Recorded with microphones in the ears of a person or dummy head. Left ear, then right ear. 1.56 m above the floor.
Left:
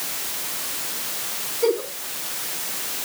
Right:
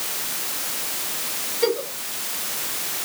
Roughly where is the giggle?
Right.